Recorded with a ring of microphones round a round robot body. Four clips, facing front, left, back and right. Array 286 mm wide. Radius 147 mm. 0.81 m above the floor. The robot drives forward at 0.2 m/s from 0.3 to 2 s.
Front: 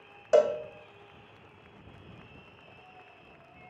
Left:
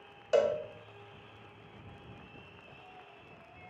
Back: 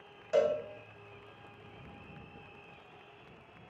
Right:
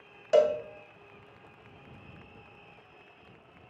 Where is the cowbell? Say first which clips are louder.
Right 4 dB, front 5 dB; 15° right, 0.6 m; by 0.6 s 20° right, 0.5 m.